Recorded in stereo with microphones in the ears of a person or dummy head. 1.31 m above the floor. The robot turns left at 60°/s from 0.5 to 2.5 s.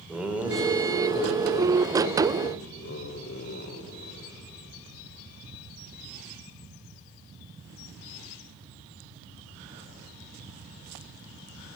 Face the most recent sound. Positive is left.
turn(degrees=50)  # may be behind; listen again after turning